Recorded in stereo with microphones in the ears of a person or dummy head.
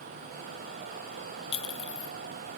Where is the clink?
25° left (ahead or behind), 0.7 m.